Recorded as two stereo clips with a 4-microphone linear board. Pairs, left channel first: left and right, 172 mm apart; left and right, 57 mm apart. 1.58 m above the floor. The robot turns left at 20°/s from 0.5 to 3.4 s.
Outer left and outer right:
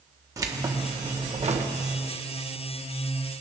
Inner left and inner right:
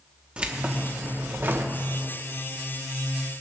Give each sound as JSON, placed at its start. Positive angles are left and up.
{"t": 0.4, "sound": "keys jangling", "side_deg": -20, "distance_m": 1.0}